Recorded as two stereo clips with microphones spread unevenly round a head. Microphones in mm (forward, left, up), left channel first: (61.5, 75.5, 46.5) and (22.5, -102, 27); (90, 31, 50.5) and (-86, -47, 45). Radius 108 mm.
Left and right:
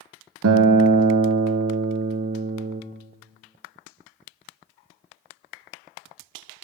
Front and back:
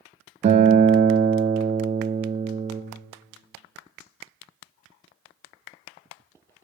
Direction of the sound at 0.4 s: 95° right.